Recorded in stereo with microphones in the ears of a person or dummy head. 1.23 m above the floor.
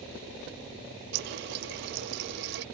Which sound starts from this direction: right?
A running tap, at 1.1 s.